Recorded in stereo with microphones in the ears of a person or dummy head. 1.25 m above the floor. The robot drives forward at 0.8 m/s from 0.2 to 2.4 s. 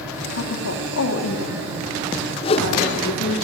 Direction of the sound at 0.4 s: 75° left (ahead or behind).